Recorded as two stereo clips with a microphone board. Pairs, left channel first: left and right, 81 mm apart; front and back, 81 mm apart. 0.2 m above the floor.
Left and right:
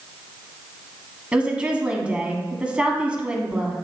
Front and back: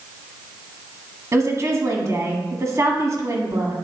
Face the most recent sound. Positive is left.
turn(degrees=-160)